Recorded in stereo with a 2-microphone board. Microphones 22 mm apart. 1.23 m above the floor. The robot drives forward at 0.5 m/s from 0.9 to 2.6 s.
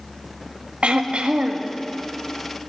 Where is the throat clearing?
85° right, 1.9 m.